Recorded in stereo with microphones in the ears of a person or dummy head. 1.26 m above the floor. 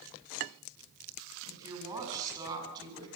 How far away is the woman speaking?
About 8.5 m.